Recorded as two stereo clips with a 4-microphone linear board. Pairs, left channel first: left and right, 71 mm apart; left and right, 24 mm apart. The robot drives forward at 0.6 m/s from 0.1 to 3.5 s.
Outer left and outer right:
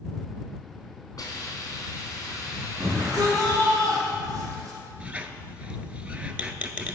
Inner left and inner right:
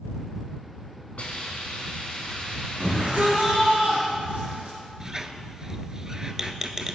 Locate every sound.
1.2 s a hiss: 60° left (ahead or behind), 2.5 m; by 3.8 s 45° left (ahead or behind), 3 m
2.8 s a shout: 50° right (ahead or behind), 2.5 m; by 4.8 s 45° right (ahead or behind), 2.5 m
5.0 s a squeak: 20° right (ahead or behind), 0.5 m